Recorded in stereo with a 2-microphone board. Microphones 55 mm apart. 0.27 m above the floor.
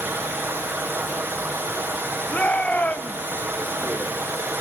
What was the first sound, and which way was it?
Running water, 45° right (ahead or behind).